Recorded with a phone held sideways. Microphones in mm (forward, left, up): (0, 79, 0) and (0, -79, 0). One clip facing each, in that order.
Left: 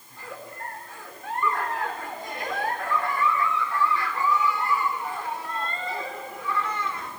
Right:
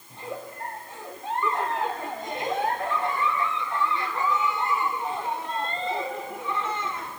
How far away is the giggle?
About 1.9 m.